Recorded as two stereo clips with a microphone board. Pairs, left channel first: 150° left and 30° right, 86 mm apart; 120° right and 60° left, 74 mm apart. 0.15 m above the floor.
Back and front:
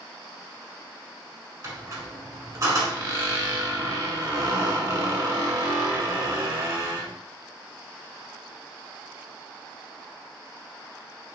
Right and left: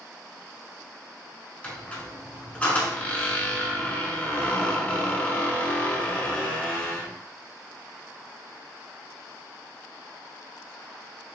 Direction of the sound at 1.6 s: 55° right.